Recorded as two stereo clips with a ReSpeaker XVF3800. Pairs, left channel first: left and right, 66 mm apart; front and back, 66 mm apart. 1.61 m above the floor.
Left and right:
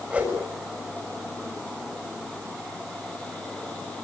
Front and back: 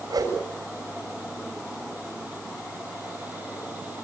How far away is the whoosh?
About 7 m.